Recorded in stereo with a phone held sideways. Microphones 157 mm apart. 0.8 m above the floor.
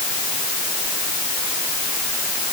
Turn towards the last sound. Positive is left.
No sound to turn to.